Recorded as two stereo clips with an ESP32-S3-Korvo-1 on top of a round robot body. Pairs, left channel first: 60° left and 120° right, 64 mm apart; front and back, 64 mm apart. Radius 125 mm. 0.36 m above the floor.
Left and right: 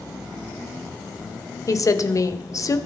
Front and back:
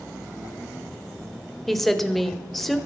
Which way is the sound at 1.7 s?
90° left.